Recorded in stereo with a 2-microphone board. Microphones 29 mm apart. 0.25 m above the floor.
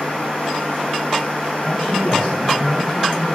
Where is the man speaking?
65° left (ahead or behind), 3 m; by 3.4 s 50° left (ahead or behind), 3.5 m.